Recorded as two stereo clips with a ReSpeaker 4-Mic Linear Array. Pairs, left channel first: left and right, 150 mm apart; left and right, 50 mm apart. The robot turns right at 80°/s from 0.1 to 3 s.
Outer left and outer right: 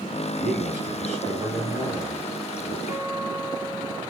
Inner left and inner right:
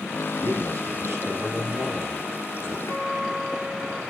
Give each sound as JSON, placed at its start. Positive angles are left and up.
{"t": 0.3, "sound": "a man speaking", "azimuth_deg": -120, "distance_m": 2.5}
{"t": 2.9, "sound": "a guitar", "side_deg": 55, "distance_m": 1.6}